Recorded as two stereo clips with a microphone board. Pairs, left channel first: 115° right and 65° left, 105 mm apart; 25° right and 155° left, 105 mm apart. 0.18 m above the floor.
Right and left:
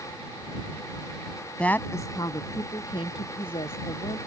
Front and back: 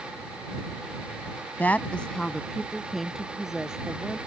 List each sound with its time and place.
1.6 s a woman speaking: 55° right; by 4.2 s 120° right